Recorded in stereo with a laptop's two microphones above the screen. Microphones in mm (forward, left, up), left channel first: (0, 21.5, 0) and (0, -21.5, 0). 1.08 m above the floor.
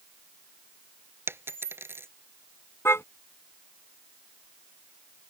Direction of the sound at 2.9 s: 85° left.